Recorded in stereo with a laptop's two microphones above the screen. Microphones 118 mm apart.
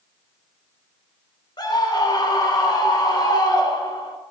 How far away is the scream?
About 3 m.